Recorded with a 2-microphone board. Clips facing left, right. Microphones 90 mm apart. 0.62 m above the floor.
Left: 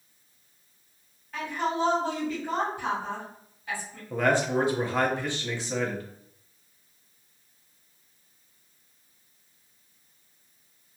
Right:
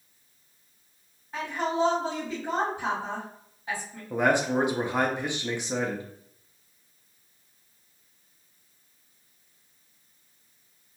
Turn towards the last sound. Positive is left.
turn(degrees=-15)  # may be behind; listen again after turning